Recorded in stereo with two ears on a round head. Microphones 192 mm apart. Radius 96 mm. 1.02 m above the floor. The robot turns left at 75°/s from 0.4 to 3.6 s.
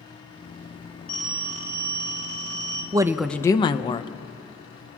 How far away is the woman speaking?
About 0.5 m.